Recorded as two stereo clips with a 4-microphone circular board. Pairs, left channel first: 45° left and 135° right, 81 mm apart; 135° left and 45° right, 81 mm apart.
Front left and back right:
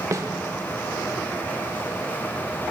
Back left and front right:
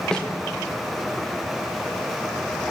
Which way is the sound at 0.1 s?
150° right.